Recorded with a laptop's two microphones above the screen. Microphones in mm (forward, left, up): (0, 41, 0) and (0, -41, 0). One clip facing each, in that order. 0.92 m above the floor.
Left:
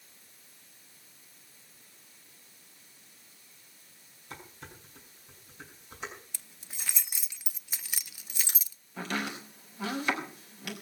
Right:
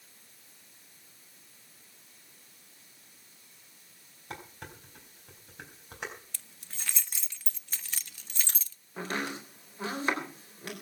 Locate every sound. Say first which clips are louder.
4.3 s dishes clattering: right 3 dB; 65° right (ahead or behind), 4.5 m
6.3 s keys jangling: even; 10° left (ahead or behind), 0.5 m
9.0 s chopping: even; 35° right (ahead or behind), 3.5 m